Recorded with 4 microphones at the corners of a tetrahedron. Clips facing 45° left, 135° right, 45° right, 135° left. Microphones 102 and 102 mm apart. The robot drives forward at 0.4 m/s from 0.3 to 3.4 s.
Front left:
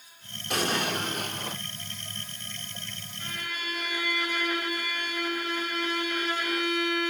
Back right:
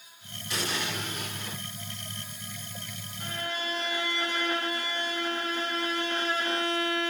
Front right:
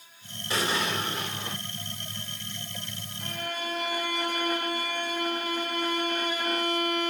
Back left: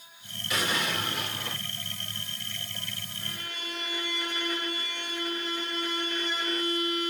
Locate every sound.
0.5 s an explosion: 10° left, 3 m; by 1.6 s 15° left, 2.5 m
3.2 s a violin: 75° right, 3 m; by 7.1 s 80° right, 3 m